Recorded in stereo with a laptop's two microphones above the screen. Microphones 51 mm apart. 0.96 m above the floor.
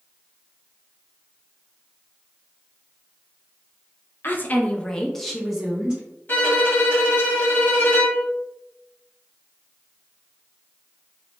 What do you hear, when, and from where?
4.2 s a woman speaking: 45° left (ahead or behind), 0.6 m; by 6.0 s 20° right (ahead or behind), 1.0 m
6.3 s a violin: 40° left (ahead or behind), 1.2 m